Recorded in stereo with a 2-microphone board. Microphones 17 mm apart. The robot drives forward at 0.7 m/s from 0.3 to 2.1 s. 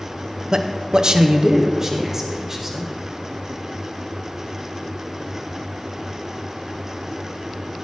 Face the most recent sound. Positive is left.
turn(degrees=-25)  # may be behind; listen again after turning